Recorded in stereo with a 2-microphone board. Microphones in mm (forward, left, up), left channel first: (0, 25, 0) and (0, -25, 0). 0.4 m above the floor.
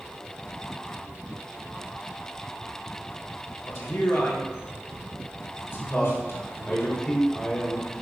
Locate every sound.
3.6 s a man speaking: 60° left (ahead or behind), 2.5 m
5.9 s a man speaking: 15° left (ahead or behind), 1.7 m